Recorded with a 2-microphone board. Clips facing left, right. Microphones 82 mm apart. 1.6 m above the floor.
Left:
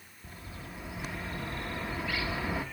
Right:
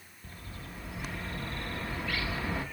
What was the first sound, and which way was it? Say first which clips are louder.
A bird: left 1 dB; 5° left (ahead or behind).